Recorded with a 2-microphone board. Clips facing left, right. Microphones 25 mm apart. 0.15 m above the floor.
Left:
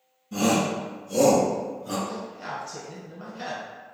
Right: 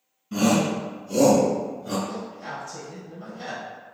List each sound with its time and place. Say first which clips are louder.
0.3 s a shout: right 2 dB; 40° right (ahead or behind), 1.4 m; by 2.0 s 20° right (ahead or behind), 1.6 m
2.1 s a man speaking: even; 40° left (ahead or behind), 1.6 m